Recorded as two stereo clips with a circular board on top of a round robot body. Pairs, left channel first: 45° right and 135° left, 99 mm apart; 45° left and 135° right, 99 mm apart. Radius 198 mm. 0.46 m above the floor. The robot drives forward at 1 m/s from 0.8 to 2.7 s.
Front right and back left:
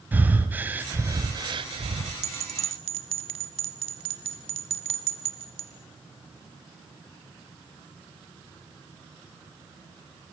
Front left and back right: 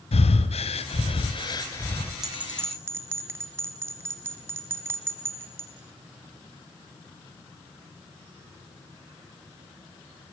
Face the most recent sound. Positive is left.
turn(degrees=160)